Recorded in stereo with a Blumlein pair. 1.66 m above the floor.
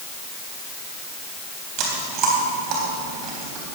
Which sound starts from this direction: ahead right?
Chewing, at 1.8 s.